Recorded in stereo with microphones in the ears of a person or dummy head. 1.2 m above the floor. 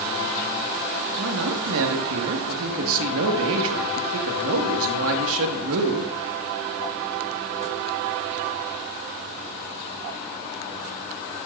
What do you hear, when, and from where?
1.2 s a man speaking: 75° right (ahead or behind), 1.8 m